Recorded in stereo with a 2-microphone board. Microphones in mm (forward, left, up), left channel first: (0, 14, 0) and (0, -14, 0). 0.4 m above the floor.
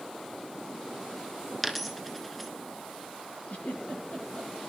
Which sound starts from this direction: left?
A giggle, at 3.5 s.